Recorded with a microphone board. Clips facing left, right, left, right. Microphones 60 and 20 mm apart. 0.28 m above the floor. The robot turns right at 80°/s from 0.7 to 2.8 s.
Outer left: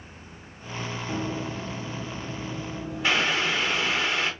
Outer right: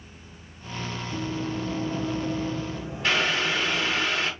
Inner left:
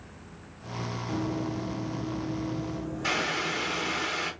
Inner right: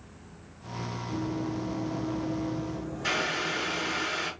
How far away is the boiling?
About 2.5 m.